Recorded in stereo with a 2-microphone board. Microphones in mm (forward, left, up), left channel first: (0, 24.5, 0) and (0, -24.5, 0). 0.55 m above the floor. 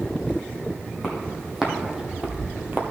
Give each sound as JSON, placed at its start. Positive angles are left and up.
{"t": 1.0, "sound": "footsteps", "side_deg": -5, "distance_m": 1.9}